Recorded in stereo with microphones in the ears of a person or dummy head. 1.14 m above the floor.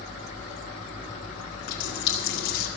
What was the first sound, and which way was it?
A running tap, 50° left (ahead or behind).